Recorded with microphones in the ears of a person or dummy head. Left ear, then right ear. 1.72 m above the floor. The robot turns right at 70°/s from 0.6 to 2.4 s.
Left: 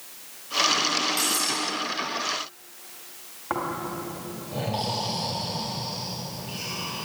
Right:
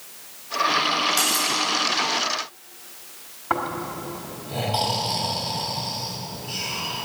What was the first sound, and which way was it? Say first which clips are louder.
Cutlery clinking: right 4 dB; centre (ahead or behind).